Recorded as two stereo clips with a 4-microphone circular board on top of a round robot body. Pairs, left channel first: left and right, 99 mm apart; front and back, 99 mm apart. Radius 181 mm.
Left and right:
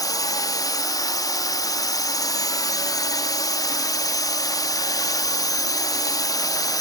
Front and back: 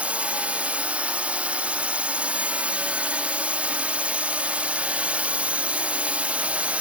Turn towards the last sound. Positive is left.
turn(degrees=110)